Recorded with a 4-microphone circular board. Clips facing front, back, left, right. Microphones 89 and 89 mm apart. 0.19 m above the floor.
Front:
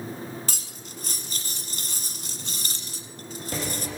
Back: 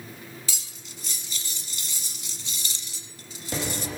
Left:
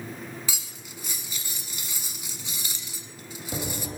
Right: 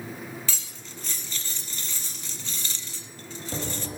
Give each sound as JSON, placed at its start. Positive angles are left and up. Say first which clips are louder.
{"t": 0.5, "sound": "cutlery clinking", "louder": "front 4 dB, even", "azimuth_deg": 15, "distance_m": 1.1}